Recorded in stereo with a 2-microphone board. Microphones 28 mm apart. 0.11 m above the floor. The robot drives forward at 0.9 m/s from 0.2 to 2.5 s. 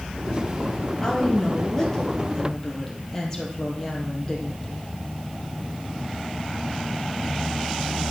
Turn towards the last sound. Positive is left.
turn(degrees=15)  # may be behind; listen again after turning